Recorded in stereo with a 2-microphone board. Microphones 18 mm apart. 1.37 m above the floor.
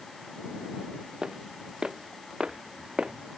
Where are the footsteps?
55° right (ahead or behind); by 3.1 s 65° right (ahead or behind).